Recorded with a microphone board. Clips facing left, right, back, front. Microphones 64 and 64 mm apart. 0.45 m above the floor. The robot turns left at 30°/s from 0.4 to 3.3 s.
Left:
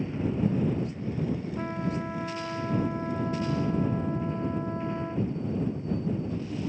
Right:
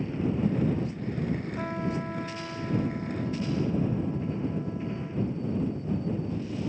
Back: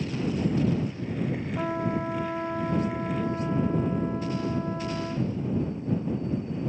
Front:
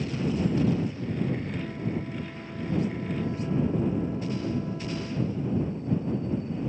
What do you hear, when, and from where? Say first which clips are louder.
1.6 s a trumpet: even, back 4 dB; 170° right; by 5.3 s 135° left